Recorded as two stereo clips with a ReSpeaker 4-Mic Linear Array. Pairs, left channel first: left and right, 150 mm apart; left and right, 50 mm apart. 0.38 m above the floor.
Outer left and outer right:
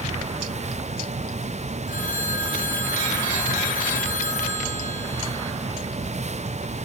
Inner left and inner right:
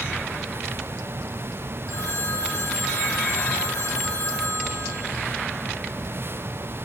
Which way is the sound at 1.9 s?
65° left (ahead or behind).